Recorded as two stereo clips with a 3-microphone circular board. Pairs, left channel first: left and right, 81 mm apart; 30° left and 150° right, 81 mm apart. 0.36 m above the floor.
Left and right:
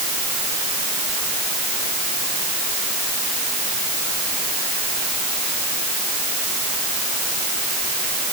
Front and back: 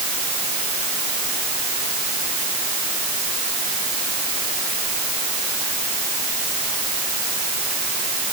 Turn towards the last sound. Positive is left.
No sound to turn to.